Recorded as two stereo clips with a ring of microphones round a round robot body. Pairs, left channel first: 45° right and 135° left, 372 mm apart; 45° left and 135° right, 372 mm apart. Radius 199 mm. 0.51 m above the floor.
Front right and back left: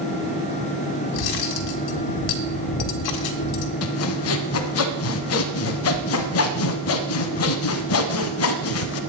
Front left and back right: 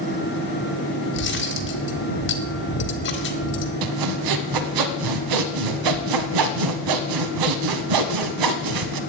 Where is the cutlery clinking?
15° right, 1.4 m.